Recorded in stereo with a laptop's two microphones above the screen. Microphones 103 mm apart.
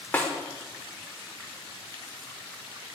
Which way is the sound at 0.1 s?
15° left (ahead or behind).